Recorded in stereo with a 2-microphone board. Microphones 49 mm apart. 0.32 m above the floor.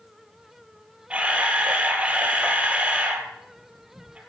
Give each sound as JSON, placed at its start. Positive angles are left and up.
{"t": 1.1, "sound": "a camera shutter", "side_deg": -25, "distance_m": 2.5}